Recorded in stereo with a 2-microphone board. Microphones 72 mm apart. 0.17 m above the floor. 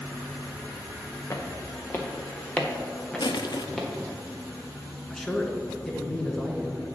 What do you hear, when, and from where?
1.3 s footsteps: 45° left (ahead or behind), 1.6 m; by 3.9 s 5° left (ahead or behind), 2.5 m
3.2 s crushing: 70° left (ahead or behind), 0.6 m
5.1 s a man speaking: 10° left (ahead or behind), 1.5 m